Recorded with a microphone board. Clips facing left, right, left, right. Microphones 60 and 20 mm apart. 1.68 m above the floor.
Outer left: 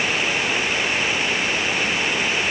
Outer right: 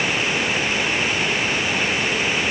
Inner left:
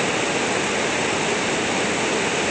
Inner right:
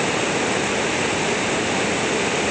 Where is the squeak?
I don't hear a squeak.